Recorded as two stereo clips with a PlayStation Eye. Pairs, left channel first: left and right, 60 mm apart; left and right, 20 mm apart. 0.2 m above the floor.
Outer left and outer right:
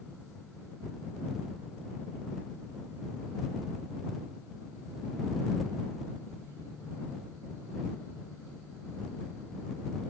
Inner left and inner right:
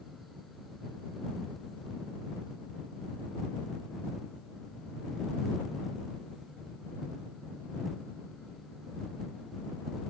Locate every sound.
Only background noise.